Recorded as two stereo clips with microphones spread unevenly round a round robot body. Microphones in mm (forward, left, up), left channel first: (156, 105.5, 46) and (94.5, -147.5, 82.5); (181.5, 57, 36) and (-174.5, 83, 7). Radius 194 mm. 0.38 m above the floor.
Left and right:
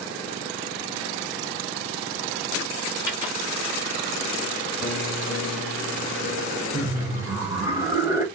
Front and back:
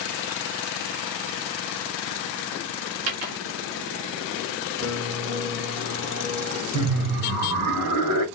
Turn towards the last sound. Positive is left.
turn(degrees=170)